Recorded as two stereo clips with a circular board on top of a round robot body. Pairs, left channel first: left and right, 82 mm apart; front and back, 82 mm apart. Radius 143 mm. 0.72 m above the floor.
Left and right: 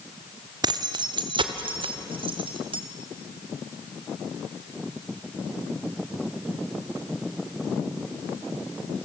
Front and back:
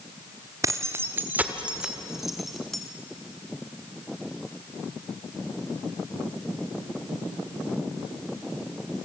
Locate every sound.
0.6 s keys jangling: 130° right, 1.3 m; by 2.8 s 85° right, 2 m